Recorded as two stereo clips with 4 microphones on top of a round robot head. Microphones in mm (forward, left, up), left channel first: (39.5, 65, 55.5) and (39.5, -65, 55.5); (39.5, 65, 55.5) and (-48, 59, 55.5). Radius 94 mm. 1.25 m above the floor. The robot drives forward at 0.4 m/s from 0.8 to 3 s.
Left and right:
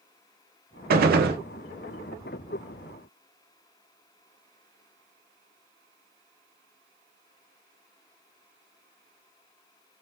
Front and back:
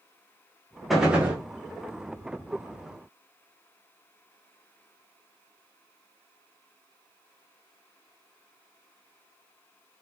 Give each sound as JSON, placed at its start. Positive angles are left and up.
{"t": 0.9, "sound": "a gunshot", "azimuth_deg": -85, "distance_m": 0.7}